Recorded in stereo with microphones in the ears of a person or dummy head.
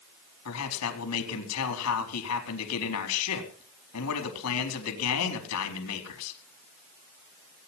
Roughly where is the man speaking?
Left.